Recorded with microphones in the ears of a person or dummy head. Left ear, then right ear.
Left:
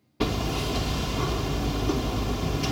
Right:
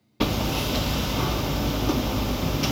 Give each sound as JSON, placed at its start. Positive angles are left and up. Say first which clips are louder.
{"t": 0.2, "sound": "hammering", "louder": "right 2 dB", "side_deg": -10, "distance_m": 0.5}